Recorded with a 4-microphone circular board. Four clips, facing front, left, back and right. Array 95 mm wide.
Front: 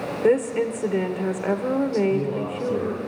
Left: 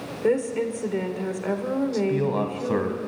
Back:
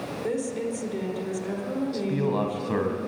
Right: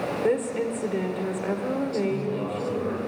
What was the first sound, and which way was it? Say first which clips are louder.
A woman speaking: left 3 dB, front 9 dB; 5° left.